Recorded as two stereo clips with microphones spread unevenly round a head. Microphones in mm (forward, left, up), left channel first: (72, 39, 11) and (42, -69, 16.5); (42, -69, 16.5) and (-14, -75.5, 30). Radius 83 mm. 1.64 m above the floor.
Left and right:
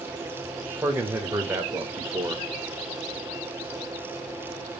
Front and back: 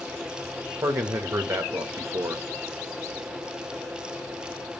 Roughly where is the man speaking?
Behind.